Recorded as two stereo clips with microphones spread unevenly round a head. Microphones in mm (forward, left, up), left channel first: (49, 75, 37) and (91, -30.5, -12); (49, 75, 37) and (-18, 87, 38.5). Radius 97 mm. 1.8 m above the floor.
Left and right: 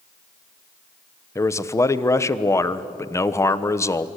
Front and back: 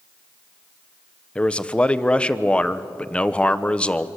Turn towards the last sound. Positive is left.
turn(degrees=65)